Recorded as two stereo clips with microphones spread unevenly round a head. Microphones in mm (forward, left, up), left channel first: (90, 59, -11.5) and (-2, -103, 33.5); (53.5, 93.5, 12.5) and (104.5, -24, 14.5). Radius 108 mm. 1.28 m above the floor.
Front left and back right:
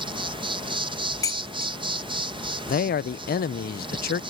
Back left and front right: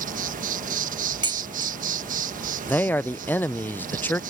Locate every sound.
0.0 s an insect: 55° right
1.2 s dishes clattering: 15° right
2.7 s a man speaking: 40° left